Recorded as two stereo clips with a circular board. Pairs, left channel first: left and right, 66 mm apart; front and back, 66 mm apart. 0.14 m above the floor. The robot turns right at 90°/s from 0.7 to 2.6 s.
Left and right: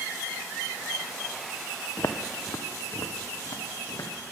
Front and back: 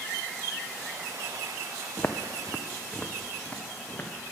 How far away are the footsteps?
About 0.7 m.